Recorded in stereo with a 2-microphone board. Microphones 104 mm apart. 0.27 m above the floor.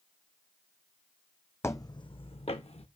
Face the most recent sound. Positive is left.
turn(degrees=80)